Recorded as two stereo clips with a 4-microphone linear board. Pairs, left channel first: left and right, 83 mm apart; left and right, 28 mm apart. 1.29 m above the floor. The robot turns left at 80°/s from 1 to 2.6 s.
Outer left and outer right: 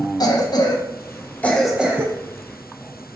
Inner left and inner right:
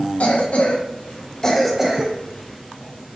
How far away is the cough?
About 0.7 m.